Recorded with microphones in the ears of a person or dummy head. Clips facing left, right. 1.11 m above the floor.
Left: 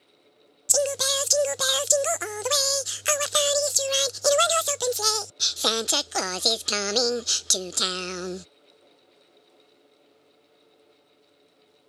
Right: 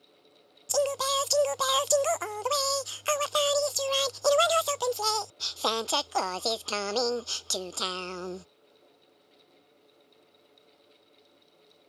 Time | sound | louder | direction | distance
0.7 | singing | left 1 dB | 25° left (ahead or behind) | ?